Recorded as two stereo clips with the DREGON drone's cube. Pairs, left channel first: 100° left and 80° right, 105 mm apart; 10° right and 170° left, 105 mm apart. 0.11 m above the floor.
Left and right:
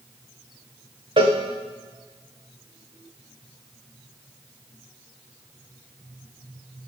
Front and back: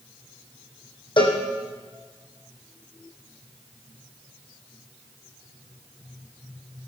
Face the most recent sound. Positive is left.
turn(degrees=-45)